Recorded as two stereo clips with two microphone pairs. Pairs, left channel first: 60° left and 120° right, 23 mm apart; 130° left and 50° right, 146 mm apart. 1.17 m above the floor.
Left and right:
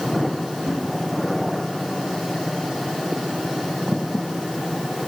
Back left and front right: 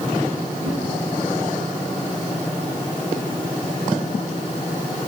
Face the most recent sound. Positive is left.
turn(degrees=-90)